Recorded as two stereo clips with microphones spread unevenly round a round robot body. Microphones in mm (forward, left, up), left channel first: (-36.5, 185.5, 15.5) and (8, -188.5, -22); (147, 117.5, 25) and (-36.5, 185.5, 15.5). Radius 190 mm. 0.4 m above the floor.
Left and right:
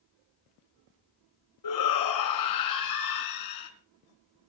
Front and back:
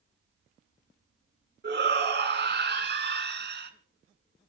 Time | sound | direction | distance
1.6 | a shout | 130° left | 4.5 m